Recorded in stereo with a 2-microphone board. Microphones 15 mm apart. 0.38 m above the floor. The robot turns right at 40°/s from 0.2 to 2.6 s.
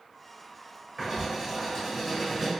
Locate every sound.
1.0 s writing: 20° right (ahead or behind), 1.6 m; by 2.5 s 10° left (ahead or behind), 1.6 m